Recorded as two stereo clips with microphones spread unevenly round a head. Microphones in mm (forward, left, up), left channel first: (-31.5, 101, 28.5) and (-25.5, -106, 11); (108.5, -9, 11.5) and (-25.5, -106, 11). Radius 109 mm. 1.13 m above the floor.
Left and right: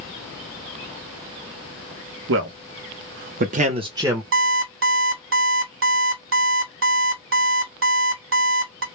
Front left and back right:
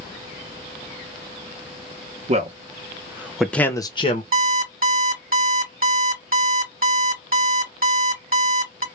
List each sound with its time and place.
2.3 s a man speaking: 100° right, 0.9 m; by 4.2 s 10° right, 0.7 m
4.3 s an alarm clock: 110° right, 1.4 m